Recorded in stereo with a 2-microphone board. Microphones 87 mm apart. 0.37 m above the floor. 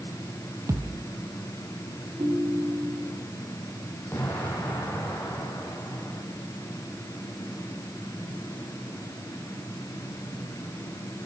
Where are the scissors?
I don't hear scissors.